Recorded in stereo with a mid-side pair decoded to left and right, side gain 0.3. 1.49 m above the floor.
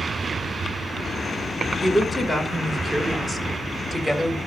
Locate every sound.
1.8 s a woman speaking: 20° left, 4.5 m; by 4.4 s 10° left, 6.5 m